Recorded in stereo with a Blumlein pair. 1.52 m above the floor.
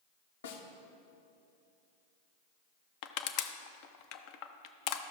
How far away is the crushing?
About 0.6 m.